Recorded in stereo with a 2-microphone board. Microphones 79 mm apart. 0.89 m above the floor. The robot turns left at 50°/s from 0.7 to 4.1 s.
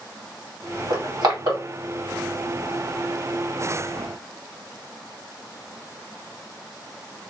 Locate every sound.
0.9 s crushing: 55° right (ahead or behind), 1.9 m